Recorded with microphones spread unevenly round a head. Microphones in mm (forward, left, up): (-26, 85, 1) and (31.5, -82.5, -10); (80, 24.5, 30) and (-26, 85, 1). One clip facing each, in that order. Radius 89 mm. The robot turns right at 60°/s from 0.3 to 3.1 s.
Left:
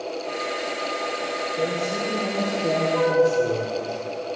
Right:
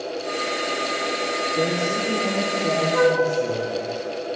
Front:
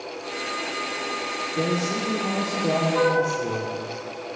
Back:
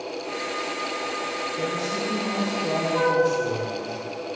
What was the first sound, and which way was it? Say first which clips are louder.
A man speaking: right 2 dB, front 4 dB; 30° right.